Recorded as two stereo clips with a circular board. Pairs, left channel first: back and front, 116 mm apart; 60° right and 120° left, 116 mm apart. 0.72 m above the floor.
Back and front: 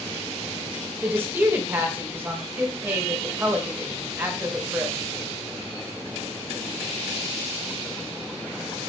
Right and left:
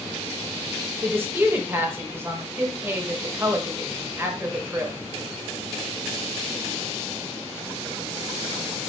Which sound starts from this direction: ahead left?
A woman speaking, at 1.0 s.